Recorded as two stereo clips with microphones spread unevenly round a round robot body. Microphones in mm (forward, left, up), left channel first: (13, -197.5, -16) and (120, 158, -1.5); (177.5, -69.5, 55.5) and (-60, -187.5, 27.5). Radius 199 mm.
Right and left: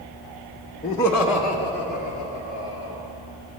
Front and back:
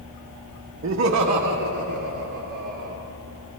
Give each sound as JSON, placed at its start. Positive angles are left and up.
{"t": 0.8, "sound": "laughter", "azimuth_deg": -170, "distance_m": 0.6}